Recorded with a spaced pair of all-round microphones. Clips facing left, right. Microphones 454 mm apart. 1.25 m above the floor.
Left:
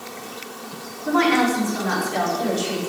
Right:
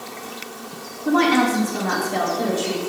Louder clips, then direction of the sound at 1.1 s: Right 1 dB; 55° right (ahead or behind).